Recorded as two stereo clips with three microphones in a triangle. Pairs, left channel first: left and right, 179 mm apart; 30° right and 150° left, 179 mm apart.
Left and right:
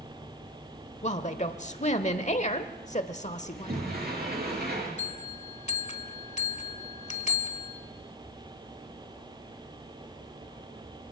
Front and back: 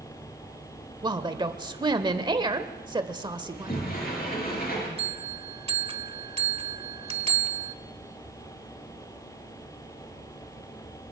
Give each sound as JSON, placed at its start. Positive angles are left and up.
{"t": 1.0, "sound": "a woman speaking", "azimuth_deg": 100, "distance_m": 1.1}
{"t": 3.5, "sound": "a sliding door", "azimuth_deg": -65, "distance_m": 6.5}
{"t": 5.0, "sound": "a bell", "azimuth_deg": 110, "distance_m": 1.2}